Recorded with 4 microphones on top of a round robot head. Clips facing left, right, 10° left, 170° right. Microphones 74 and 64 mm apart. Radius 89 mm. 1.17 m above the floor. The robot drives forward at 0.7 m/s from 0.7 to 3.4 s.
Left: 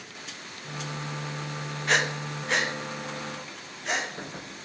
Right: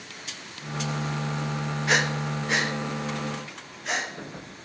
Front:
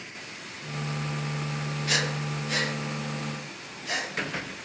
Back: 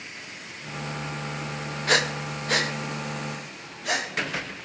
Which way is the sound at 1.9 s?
175° right.